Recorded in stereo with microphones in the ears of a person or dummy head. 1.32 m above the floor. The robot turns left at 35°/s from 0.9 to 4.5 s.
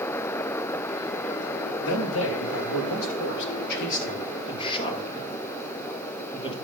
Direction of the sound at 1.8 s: 60° left (ahead or behind).